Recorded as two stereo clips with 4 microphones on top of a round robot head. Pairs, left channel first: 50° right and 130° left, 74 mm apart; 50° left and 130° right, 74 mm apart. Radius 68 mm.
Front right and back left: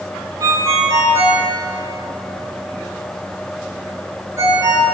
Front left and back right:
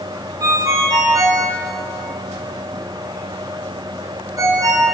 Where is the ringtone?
Straight behind, 6.5 m.